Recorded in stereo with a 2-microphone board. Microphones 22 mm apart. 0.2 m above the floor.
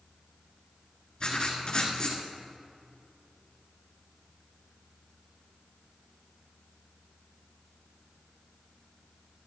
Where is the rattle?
No rattle in this recording.